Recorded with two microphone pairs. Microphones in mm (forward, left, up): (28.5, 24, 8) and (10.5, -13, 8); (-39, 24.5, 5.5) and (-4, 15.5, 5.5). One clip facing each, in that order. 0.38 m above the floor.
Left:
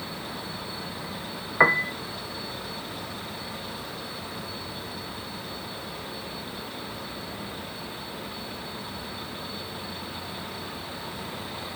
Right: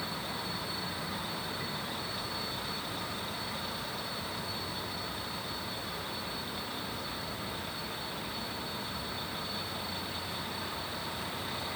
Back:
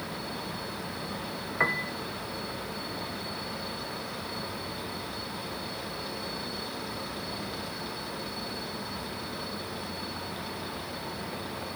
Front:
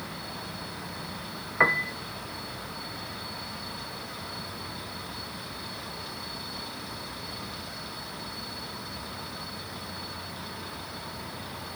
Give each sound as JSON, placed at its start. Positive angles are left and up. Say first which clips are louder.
{"t": 1.6, "sound": "a piano", "louder": "left 18 dB, front 5 dB", "azimuth_deg": 60}